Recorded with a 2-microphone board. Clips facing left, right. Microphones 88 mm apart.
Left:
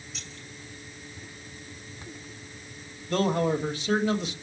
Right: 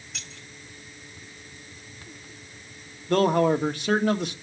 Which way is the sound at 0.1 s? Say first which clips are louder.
Right 3 dB; 70° right (ahead or behind).